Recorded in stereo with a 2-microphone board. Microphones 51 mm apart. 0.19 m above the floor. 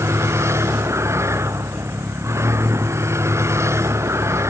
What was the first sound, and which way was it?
A vehicle, 60° right (ahead or behind).